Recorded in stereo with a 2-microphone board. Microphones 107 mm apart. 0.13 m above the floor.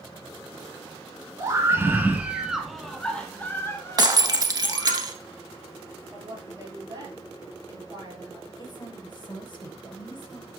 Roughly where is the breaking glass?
Right.